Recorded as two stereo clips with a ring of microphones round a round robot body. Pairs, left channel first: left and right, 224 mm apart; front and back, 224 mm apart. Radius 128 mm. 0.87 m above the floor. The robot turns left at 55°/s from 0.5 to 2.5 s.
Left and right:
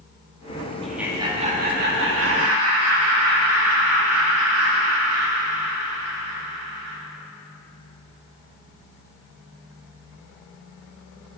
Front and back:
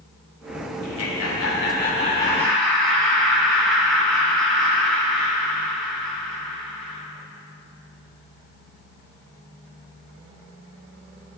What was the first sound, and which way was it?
Laughter, 5° left.